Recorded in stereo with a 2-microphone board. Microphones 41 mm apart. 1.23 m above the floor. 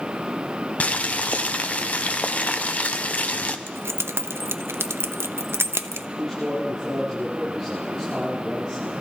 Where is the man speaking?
10° left (ahead or behind), 7.5 m.